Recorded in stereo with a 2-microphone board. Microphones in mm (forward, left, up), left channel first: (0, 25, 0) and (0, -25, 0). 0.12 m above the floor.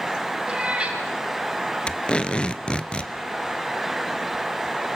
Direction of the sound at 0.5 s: 20° right (ahead or behind).